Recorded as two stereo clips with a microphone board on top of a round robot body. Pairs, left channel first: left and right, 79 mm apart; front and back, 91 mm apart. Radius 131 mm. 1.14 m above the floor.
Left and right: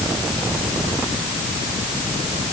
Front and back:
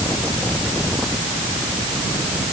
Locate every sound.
Only background noise.